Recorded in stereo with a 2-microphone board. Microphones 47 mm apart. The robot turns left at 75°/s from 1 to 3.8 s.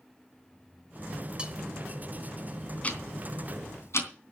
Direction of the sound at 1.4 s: 20° right (ahead or behind).